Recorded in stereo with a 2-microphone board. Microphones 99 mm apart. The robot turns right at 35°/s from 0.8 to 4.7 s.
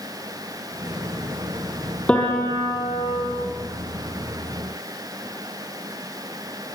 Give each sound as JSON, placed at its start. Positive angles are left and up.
{"t": 2.1, "sound": "a piano", "azimuth_deg": 10, "distance_m": 6.5}